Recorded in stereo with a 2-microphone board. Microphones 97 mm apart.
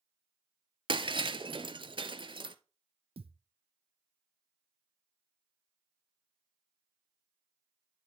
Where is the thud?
80° right, 0.8 m.